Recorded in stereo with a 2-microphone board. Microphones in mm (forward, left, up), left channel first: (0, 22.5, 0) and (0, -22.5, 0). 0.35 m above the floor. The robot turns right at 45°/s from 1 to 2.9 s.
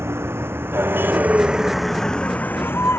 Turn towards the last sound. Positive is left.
turn(degrees=65)  # may be behind; listen again after turning